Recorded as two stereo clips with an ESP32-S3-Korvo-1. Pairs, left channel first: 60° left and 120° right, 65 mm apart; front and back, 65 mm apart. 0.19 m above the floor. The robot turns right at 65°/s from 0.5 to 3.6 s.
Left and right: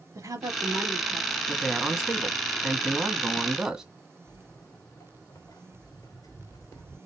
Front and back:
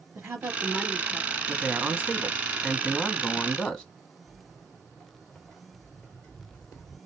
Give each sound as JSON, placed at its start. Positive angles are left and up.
{"t": 0.1, "sound": "a woman speaking", "azimuth_deg": -130, "distance_m": 3.5}
{"t": 1.5, "sound": "a man speaking", "azimuth_deg": 155, "distance_m": 1.4}
{"t": 4.3, "sound": "footsteps", "azimuth_deg": 105, "distance_m": 1.4}